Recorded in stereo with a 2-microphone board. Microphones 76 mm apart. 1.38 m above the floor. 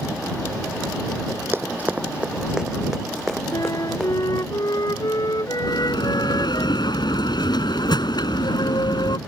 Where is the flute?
55° left (ahead or behind).